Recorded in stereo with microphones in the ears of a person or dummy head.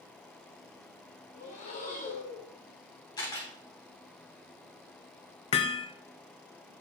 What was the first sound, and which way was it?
Breathing, 35° left (ahead or behind).